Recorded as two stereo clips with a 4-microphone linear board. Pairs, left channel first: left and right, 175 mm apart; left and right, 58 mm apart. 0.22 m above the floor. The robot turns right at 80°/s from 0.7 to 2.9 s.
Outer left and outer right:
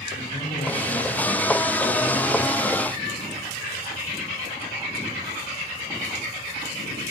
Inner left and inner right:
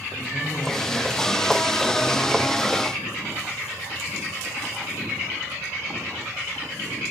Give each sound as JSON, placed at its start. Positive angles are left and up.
{"t": 0.1, "sound": "a man speaking", "azimuth_deg": 60, "distance_m": 8.0}